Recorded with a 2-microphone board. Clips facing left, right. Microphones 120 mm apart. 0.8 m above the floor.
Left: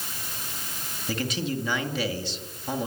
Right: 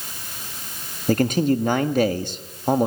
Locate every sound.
1.1 s a man speaking: 50° right (ahead or behind), 1.7 m